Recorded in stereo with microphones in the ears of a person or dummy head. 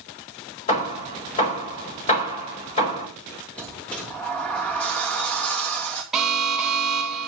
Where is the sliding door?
5° left (ahead or behind), 2.5 m.